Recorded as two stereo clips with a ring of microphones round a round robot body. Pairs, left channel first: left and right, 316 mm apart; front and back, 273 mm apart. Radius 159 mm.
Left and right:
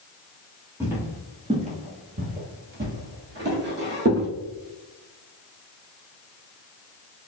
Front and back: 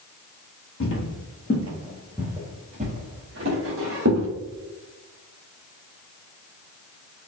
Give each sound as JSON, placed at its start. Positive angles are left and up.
{"t": 0.8, "sound": "footsteps", "azimuth_deg": -10, "distance_m": 1.1}